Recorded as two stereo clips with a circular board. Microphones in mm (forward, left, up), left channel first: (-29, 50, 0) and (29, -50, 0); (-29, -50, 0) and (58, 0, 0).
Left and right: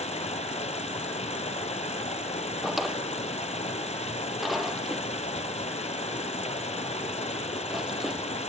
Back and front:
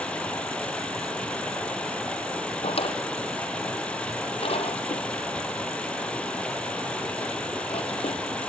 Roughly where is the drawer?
Behind right.